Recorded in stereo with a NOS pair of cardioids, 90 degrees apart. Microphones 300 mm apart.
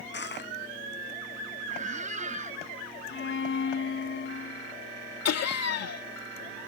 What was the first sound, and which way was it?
Crushing, 35° left.